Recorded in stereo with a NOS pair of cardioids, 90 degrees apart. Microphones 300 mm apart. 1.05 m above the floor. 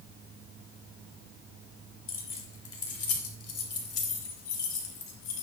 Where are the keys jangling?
40° left, 3.5 m; by 5.4 s 65° left, 4.5 m.